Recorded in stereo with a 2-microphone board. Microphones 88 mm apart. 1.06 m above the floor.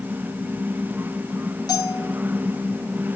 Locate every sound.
1.7 s a bell: 45° left (ahead or behind), 2.5 m